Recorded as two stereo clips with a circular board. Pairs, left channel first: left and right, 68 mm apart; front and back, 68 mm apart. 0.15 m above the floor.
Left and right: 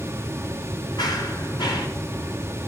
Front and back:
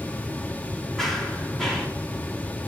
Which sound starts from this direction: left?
Running footsteps, at 1.0 s.